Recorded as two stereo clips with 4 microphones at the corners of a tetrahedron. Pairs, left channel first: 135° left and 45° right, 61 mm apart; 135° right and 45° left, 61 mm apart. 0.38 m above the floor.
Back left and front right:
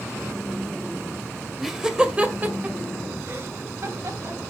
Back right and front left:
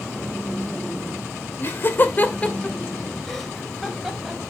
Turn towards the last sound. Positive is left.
turn(degrees=-35)